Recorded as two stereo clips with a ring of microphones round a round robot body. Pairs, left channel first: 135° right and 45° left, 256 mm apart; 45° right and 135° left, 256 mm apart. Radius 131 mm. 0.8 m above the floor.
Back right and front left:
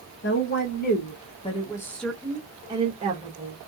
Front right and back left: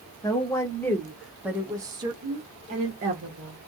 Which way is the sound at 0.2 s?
115° right.